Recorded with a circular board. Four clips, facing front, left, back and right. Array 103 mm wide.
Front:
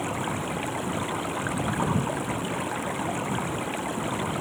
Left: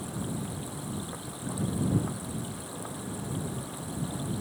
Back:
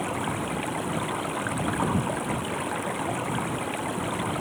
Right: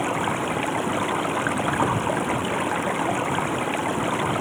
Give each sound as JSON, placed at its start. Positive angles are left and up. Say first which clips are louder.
{"t": 0.0, "sound": "running water", "louder": "right 12 dB, even", "azimuth_deg": -95}